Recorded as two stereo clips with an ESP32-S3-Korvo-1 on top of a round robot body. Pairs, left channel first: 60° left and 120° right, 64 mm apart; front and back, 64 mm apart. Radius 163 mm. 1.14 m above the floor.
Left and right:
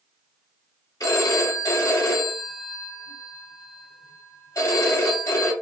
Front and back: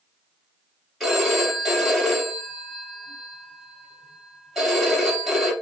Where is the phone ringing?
90° left, 2.5 m.